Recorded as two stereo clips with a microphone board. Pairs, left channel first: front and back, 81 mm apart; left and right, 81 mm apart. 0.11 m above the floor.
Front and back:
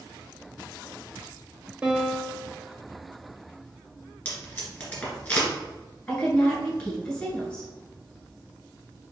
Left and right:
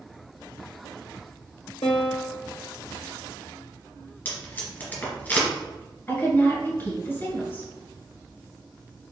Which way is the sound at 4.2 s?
55° left.